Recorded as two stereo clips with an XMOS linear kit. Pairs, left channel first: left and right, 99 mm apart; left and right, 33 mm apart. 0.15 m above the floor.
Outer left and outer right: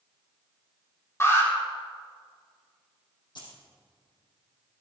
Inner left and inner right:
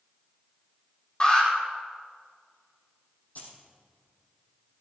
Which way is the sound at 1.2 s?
25° left (ahead or behind).